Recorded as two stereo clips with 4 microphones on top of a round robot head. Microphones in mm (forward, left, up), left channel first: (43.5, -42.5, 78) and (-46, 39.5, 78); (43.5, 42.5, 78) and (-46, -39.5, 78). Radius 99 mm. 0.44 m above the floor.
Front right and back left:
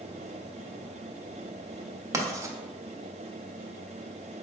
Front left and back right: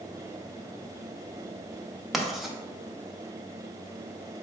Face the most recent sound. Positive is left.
turn(degrees=135)